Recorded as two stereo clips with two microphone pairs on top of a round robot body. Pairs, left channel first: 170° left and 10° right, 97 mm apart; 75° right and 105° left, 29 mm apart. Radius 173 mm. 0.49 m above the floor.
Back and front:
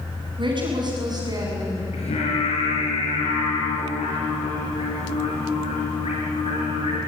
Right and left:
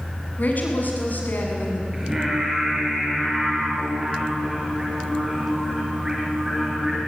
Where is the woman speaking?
45° right, 6 m; by 1.8 s 65° right, 6 m.